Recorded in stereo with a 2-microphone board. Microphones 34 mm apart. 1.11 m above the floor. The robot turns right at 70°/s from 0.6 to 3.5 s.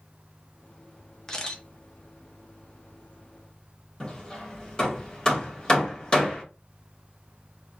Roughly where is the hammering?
Left.